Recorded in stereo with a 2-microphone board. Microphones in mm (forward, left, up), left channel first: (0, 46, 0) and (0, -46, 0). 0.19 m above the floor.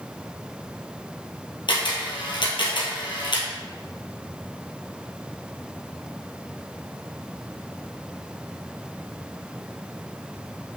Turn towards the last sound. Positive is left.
turn(degrees=65)  # may be behind; listen again after turning